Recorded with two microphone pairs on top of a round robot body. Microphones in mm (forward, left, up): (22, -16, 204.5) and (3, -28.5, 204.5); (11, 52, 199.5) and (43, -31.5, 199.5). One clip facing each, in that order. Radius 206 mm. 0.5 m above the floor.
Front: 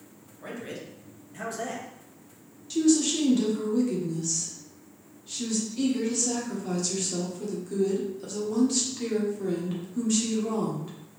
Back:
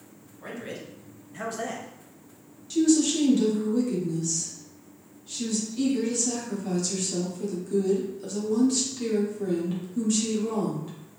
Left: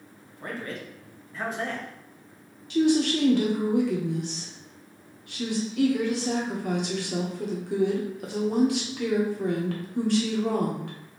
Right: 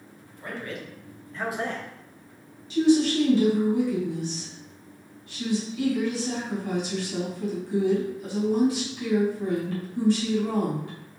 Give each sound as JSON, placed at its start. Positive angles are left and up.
{"t": 0.4, "sound": "a man speaking", "azimuth_deg": 135, "distance_m": 1.7}
{"t": 2.7, "sound": "a woman speaking", "azimuth_deg": 120, "distance_m": 1.4}